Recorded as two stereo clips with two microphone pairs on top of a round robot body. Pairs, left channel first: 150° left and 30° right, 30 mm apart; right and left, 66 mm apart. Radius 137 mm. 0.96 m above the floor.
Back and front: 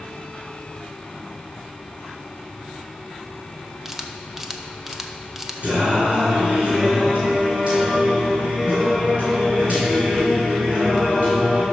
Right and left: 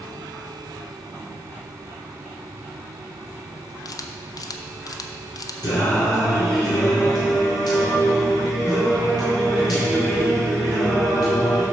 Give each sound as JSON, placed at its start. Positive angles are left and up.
{"t": 3.9, "sound": "a camera shutter", "azimuth_deg": -115, "distance_m": 0.6}
{"t": 5.6, "sound": "singing", "azimuth_deg": -75, "distance_m": 2.0}